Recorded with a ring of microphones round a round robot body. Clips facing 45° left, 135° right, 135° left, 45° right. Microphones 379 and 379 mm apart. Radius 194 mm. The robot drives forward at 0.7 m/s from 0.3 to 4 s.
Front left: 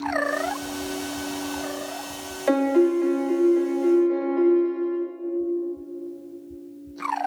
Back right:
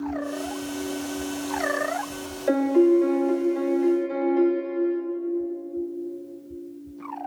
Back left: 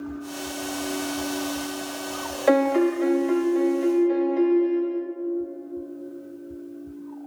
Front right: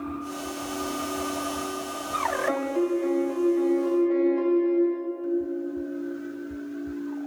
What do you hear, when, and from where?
2.5 s a piano: 110° left, 0.7 m; by 5.0 s 155° left, 1.5 m